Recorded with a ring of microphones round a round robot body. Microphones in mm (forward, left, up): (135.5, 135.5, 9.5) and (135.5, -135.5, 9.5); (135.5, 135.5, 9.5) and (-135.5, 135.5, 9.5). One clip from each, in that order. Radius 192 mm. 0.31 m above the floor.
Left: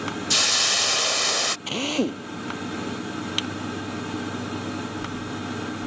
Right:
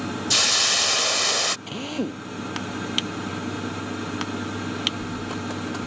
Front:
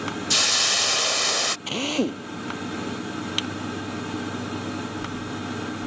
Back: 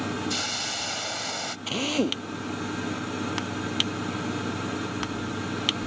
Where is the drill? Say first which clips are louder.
Left 4 dB, front 1 dB; 70° left.